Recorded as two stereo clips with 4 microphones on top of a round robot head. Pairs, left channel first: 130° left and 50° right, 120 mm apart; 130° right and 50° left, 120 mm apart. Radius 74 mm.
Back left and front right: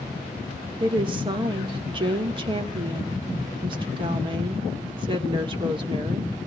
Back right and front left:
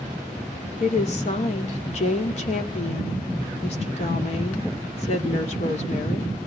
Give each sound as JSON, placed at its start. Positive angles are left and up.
{"t": 0.8, "sound": "a woman speaking", "azimuth_deg": -100, "distance_m": 1.9}